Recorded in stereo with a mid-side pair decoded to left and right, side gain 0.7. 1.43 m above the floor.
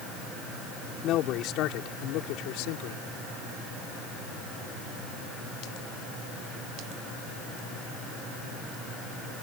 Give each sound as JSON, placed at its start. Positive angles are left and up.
{"t": 1.0, "sound": "a man speaking", "azimuth_deg": 55}